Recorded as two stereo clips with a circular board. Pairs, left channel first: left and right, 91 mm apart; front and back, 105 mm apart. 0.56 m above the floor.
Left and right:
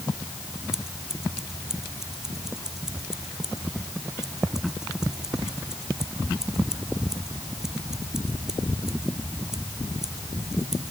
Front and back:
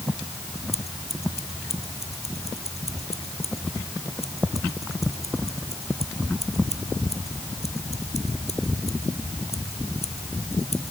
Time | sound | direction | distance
0.7 | scissors | 5° right | ?